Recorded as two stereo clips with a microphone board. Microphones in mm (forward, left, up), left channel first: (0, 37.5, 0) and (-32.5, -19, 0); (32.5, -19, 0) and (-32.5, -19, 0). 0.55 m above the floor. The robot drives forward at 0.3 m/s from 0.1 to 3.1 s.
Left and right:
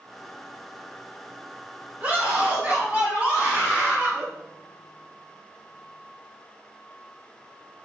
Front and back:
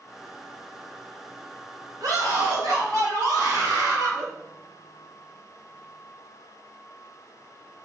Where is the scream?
Straight behind, 3 m.